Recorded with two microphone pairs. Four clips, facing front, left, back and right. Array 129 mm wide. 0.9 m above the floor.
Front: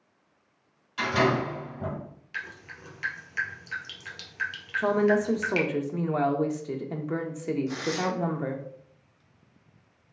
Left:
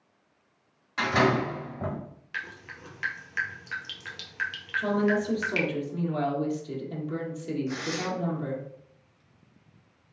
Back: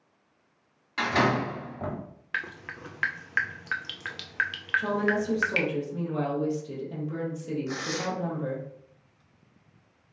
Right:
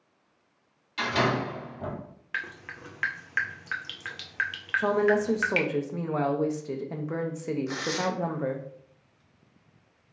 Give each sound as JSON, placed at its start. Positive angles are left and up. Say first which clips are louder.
{"t": 1.0, "sound": "a door slam", "louder": "left 3 dB, even", "azimuth_deg": 140, "distance_m": 1.7}
{"t": 2.3, "sound": "dripping", "louder": "right 3 dB, back 5 dB", "azimuth_deg": -160, "distance_m": 0.5}
{"t": 4.8, "sound": "a woman speaking", "louder": "right 2 dB, front 4 dB", "azimuth_deg": -45, "distance_m": 0.7}
{"t": 7.7, "sound": "tearing paper", "louder": "right 2 dB, front 3 dB", "azimuth_deg": -115, "distance_m": 1.0}